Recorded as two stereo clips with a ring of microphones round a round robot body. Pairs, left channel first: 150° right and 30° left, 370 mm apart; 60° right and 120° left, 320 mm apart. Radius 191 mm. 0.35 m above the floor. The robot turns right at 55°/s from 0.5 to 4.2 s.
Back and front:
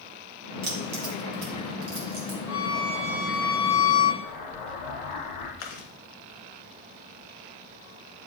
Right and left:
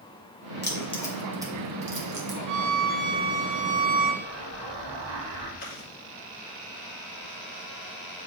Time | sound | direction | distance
0.6 | keys jangling | 5° right | 2 m
2.5 | a violin | 105° left | 1.3 m
4.2 | an explosion | 170° left | 2.5 m
5.6 | chewing | 130° right | 1.7 m